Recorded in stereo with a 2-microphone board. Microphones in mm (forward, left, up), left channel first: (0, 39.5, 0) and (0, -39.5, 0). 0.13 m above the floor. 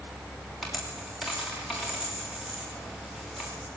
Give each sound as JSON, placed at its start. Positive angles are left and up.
{"t": 0.6, "sound": "a dropped coin", "side_deg": -5, "distance_m": 8.0}